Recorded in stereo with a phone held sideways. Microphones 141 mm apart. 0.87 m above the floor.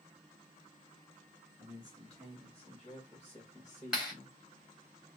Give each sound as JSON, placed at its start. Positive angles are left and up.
{"t": 1.6, "sound": "a man speaking", "side_deg": 5, "distance_m": 2.5}
{"t": 3.9, "sound": "a clap", "side_deg": -5, "distance_m": 4.0}